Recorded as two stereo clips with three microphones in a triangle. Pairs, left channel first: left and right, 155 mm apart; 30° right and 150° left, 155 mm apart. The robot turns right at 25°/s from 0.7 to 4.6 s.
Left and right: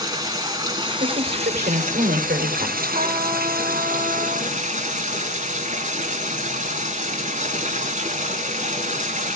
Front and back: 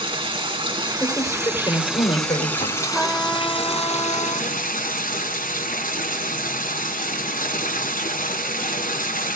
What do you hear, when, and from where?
0.0 s running water: 155° right, 3 m; by 9.4 s 55° right, 3 m
1.0 s a woman speaking: 110° right, 3.5 m; by 2.8 s 65° right, 3.5 m
2.9 s a trumpet: 125° right, 1.3 m; by 4.5 s 85° right, 1.3 m